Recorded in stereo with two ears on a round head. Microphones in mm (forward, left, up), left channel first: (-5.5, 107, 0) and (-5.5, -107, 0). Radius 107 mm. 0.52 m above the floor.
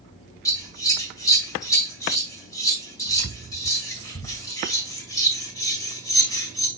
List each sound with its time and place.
0.5 s scissors: 15° left (ahead or behind), 2 m